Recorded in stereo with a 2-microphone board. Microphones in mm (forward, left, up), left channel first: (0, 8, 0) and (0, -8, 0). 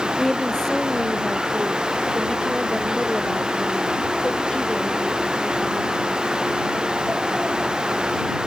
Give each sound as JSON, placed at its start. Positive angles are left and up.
{"t": 0.2, "sound": "a woman speaking", "side_deg": 30}